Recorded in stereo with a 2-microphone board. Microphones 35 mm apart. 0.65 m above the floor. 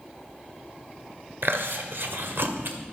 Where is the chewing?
75° right (ahead or behind), 1.7 m.